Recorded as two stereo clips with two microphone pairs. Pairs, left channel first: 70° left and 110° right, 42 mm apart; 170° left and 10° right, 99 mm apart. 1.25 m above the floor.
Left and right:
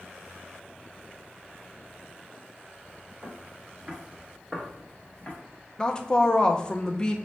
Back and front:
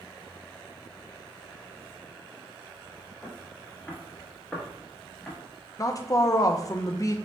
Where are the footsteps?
125° right, 1.4 m; by 5.4 s 95° left, 1.5 m.